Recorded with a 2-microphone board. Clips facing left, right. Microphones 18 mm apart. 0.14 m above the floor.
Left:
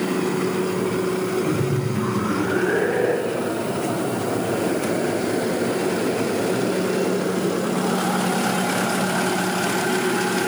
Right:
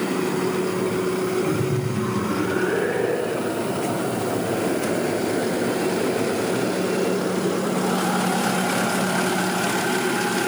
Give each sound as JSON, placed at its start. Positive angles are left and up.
{"t": 1.4, "sound": "laughter", "side_deg": 15, "distance_m": 7.0}